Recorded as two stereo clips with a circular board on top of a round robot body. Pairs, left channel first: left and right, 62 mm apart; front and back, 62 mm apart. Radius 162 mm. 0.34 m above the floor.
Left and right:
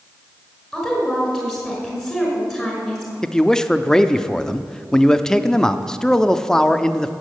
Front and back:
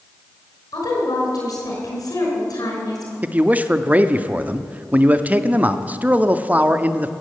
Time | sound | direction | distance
0.7 | a woman speaking | straight ahead | 5.5 m
3.2 | a man speaking | 160° left | 0.9 m